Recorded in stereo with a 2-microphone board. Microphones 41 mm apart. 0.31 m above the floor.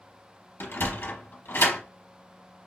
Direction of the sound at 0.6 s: 65° left (ahead or behind).